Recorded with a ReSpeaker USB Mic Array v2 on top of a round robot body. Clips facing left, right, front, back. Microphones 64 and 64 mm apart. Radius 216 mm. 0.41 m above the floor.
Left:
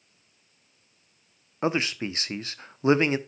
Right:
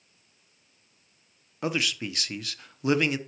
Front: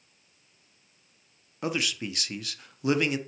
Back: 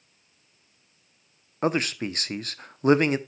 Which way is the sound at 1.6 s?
140° left.